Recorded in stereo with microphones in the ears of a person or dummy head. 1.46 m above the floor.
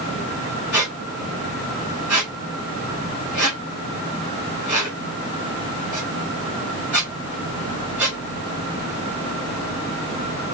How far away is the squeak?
About 0.7 m.